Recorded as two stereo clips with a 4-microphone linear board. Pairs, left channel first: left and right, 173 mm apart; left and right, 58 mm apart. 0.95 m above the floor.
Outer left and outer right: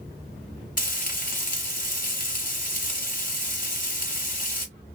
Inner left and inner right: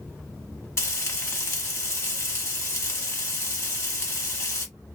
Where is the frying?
50° left (ahead or behind), 1.3 m.